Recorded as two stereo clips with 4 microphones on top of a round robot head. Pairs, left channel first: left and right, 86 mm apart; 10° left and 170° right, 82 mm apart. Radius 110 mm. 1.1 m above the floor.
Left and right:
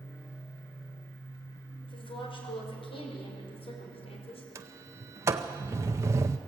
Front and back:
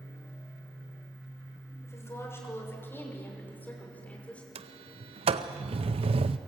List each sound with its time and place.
1.8 s a woman speaking: 65° left, 5.5 m; by 4.5 s 85° left, 4.5 m
4.5 s a sliding door: 155° right, 0.5 m